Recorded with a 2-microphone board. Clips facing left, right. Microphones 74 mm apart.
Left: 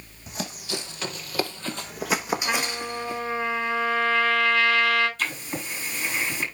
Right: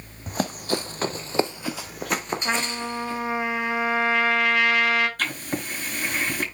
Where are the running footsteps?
45° right (ahead or behind), 1.5 m; by 3.2 s 15° left (ahead or behind), 2.5 m.